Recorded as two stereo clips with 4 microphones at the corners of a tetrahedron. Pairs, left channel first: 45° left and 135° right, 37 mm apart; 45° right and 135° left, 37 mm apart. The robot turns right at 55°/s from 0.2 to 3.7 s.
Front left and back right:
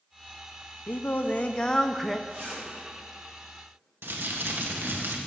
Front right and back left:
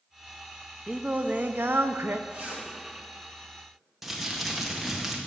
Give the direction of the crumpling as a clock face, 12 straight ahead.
5 o'clock.